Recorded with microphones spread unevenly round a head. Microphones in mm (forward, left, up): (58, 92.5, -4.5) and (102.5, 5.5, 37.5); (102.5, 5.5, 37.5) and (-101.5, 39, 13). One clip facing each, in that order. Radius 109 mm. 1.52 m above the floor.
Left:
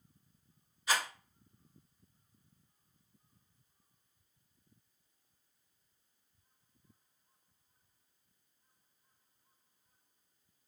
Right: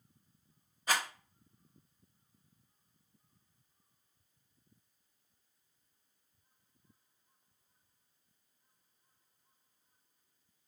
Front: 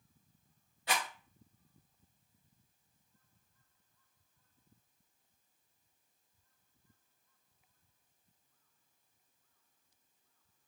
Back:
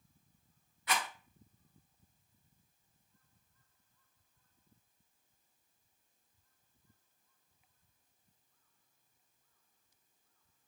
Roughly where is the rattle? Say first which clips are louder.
Even, even; ahead right.